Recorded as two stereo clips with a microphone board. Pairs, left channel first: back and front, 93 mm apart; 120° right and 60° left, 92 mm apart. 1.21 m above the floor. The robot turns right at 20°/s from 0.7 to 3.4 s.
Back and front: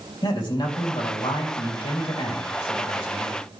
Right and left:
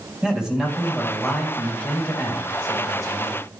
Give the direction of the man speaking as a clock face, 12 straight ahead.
7 o'clock.